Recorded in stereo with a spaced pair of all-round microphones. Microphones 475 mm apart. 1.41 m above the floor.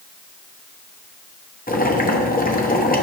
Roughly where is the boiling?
Centre.